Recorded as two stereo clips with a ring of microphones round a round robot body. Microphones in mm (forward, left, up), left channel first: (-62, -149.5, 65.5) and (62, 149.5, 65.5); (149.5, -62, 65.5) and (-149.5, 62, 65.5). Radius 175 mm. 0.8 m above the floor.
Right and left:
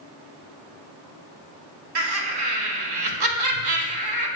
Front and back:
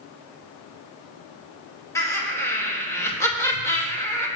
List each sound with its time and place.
1.9 s laughter: 60° left, 3 m